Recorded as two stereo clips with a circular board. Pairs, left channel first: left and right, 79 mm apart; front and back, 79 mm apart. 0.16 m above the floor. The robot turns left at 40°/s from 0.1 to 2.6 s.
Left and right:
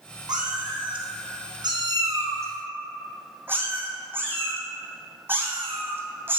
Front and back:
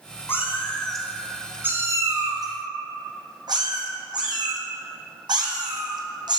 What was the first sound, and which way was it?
A cat meowing, 60° right.